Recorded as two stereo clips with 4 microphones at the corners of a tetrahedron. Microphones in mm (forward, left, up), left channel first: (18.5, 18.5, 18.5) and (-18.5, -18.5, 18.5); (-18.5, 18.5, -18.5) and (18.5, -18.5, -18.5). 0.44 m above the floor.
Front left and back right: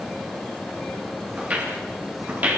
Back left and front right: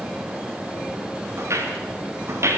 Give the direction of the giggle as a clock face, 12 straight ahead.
I don't hear a giggle.